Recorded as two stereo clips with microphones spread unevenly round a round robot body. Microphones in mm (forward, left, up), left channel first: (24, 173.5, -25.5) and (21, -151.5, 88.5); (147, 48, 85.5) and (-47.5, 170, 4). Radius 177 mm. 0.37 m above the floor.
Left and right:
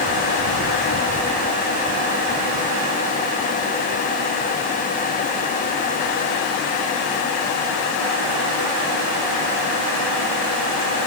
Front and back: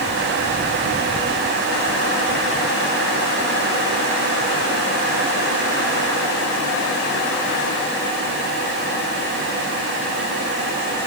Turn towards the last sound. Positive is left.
No sound to turn to.